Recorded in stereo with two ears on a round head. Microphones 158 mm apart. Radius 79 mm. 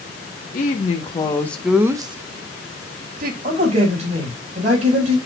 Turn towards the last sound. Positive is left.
turn(degrees=-40)  # may be behind; listen again after turning